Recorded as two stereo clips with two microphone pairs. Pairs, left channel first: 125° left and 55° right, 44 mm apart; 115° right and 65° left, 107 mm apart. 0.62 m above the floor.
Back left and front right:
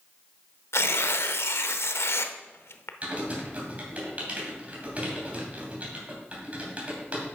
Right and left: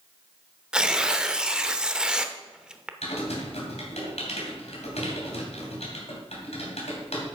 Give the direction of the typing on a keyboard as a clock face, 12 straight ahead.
4 o'clock.